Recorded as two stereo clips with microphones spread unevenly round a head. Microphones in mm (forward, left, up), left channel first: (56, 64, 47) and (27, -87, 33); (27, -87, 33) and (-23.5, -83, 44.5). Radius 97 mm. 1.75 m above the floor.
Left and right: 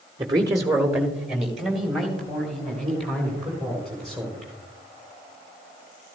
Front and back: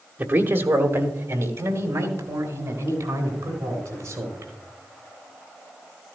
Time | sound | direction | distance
0.2 | a man speaking | 170° right | 1.0 m